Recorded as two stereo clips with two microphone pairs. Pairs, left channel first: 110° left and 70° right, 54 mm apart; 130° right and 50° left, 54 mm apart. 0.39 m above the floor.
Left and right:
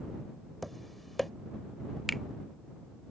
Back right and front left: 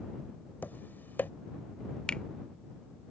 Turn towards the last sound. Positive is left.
turn(degrees=-165)